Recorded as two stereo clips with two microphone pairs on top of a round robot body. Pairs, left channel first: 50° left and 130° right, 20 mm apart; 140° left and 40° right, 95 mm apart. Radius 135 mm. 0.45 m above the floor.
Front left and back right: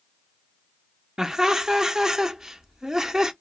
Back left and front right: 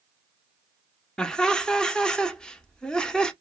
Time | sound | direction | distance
1.2 | laughter | 135° right | 0.8 m